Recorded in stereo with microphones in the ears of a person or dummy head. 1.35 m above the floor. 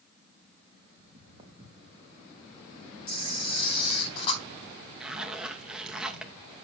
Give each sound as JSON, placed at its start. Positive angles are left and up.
{"t": 1.0, "sound": "footsteps", "side_deg": -30, "distance_m": 5.0}
{"t": 3.1, "sound": "a camera shutter", "side_deg": 30, "distance_m": 4.0}
{"t": 5.0, "sound": "a zipper", "side_deg": -5, "distance_m": 2.0}